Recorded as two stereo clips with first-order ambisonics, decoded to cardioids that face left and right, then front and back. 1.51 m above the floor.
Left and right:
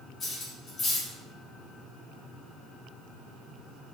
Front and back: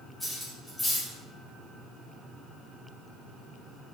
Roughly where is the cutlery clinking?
Left.